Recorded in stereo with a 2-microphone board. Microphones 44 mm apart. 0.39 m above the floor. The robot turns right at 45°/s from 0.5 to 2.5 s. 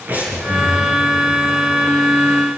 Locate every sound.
0.1 s breathing: 40° right (ahead or behind), 7.5 m; by 0.9 s 25° right (ahead or behind), 7.5 m